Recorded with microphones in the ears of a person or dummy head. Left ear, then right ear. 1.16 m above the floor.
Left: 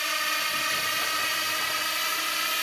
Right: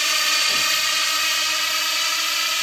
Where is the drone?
20° right (ahead or behind); by 2.6 s 10° right (ahead or behind).